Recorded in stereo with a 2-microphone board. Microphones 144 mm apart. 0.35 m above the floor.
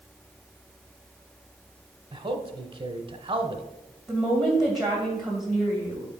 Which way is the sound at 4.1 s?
Centre (ahead or behind).